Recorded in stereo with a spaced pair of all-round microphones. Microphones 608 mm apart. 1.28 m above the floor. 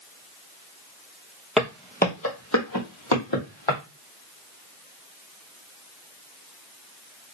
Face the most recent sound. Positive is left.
turn(degrees=50)  # may be behind; listen again after turning